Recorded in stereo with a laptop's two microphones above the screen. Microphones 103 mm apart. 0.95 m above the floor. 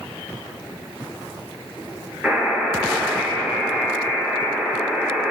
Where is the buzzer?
5° right (ahead or behind), 9 m.